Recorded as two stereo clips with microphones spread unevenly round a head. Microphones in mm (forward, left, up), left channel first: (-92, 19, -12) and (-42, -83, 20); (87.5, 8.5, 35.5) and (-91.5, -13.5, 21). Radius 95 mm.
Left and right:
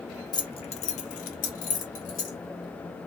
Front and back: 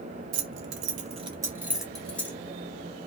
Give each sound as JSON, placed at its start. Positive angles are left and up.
{"t": 0.3, "sound": "keys jangling", "azimuth_deg": 175, "distance_m": 0.5}